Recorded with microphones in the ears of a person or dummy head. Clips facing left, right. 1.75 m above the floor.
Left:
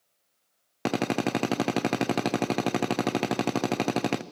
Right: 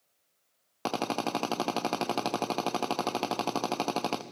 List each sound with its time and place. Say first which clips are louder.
0.8 s a drill: left 5 dB; 25° left (ahead or behind), 0.6 m